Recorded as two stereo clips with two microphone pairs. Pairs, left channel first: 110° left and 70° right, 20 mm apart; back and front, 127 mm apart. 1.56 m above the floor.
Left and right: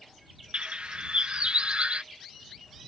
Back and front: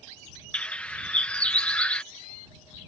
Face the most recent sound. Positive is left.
turn(degrees=-95)